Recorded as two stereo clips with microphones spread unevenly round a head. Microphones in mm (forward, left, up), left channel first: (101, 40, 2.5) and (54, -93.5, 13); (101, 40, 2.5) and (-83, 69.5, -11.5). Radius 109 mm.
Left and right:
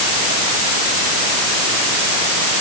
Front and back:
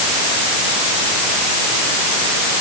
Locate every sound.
Only background noise.